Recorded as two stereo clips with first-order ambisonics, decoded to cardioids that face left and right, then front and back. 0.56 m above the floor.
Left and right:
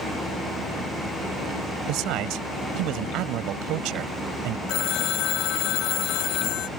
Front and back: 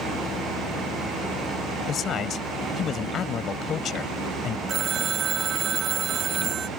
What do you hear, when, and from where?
1.9 s a man speaking: 60° right
4.7 s a phone ringing: 120° left